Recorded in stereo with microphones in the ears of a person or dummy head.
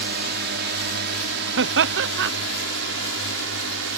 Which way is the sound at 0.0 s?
60° right (ahead or behind).